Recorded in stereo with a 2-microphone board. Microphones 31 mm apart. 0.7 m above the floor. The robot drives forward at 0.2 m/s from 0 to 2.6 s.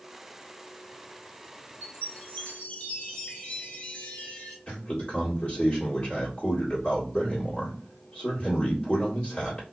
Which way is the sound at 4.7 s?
50° left (ahead or behind).